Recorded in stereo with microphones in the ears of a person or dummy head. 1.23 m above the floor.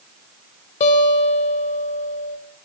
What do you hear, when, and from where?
0.8 s a guitar: 40° left (ahead or behind), 1.7 m